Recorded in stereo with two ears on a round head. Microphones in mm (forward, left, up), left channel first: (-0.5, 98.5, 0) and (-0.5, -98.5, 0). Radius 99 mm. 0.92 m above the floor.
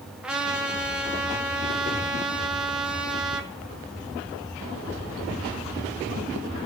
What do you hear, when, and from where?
0.2 s a trumpet: 5° right (ahead or behind), 1.2 m